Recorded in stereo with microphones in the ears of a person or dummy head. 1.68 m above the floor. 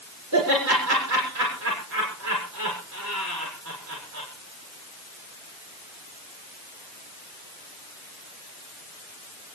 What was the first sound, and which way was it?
Laughter, 65° right (ahead or behind).